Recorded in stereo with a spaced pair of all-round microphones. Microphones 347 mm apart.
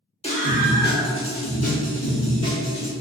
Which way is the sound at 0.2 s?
20° left (ahead or behind).